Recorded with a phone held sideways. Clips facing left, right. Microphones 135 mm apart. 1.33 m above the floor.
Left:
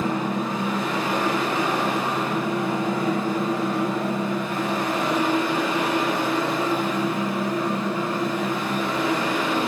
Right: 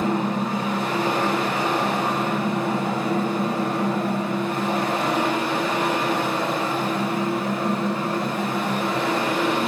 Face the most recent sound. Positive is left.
turn(degrees=-85)